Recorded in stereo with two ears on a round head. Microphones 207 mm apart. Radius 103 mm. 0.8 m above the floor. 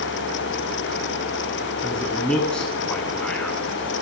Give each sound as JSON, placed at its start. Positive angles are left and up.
{"t": 1.8, "sound": "a man speaking", "side_deg": 10, "distance_m": 8.5}